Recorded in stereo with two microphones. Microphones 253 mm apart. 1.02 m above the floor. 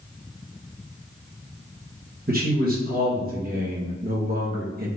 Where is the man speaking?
40° right (ahead or behind), 1.1 m.